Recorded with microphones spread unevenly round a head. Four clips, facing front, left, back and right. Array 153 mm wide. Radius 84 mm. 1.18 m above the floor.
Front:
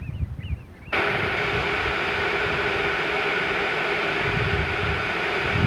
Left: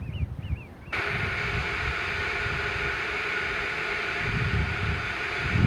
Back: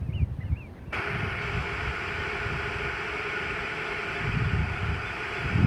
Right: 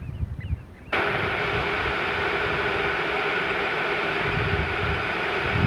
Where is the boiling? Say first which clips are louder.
Right 6 dB, front 8 dB; 35° right, 0.6 m.